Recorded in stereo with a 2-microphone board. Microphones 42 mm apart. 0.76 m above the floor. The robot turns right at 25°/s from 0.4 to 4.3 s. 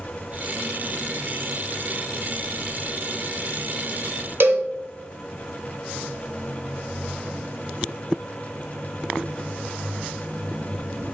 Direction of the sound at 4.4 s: 60° right (ahead or behind).